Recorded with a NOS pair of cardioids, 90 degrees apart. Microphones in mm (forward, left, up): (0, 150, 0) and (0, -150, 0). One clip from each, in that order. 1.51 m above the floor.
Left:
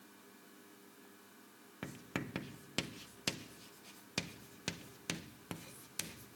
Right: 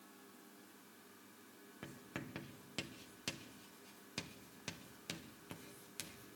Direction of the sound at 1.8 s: 35° left.